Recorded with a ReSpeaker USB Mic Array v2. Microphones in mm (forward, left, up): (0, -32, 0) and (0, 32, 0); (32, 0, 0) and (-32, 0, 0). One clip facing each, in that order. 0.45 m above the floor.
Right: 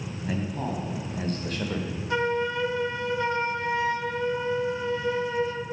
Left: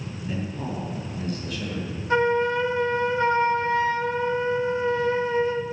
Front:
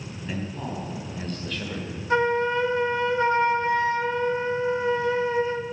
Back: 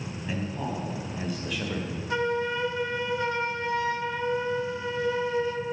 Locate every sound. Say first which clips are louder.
0.2 s a man speaking: right 1 dB, even; 95° right, 3 m; by 2.0 s 110° right, 1.1 m
2.1 s a flute: left 5 dB, front 6 dB; 45° left, 0.9 m